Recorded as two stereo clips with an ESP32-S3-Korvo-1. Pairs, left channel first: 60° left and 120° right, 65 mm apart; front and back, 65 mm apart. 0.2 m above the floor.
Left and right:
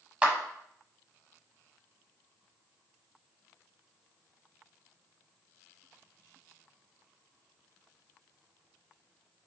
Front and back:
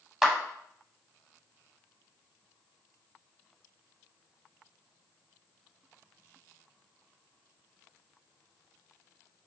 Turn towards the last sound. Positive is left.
turn(degrees=-105)